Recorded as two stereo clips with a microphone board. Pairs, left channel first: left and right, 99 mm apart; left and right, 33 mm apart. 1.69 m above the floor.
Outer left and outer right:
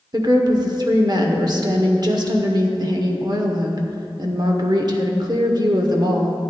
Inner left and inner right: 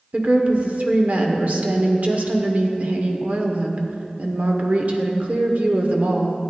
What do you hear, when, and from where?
0.1 s a woman speaking: 45° right (ahead or behind), 1.0 m